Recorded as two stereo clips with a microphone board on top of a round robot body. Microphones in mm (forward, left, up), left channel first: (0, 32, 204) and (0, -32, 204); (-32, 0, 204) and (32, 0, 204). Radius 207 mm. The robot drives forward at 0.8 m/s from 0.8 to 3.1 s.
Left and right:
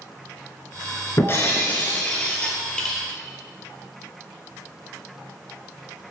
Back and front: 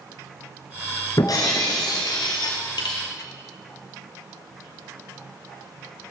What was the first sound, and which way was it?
Breaking glass, 140° left.